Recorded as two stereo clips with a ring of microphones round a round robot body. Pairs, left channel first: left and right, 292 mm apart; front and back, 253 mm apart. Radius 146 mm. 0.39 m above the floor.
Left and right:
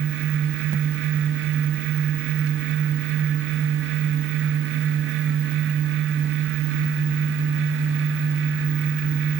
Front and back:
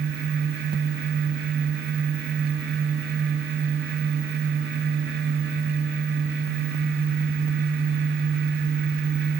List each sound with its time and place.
Only background noise.